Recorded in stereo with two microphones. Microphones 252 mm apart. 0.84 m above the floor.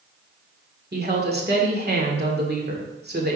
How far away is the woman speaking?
About 2 m.